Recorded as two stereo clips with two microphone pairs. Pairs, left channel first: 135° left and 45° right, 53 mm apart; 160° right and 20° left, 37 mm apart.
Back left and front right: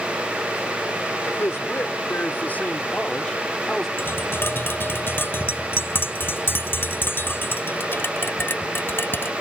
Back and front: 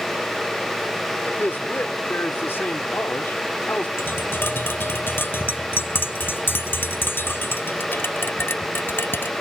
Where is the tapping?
175° right.